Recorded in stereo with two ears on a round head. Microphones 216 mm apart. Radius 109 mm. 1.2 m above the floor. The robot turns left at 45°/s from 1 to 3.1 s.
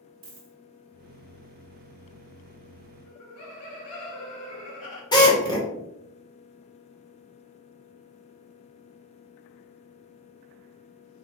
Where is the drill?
20° left (ahead or behind), 1.4 m.